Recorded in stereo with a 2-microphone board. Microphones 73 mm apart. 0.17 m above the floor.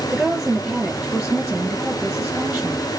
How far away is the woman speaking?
About 3 m.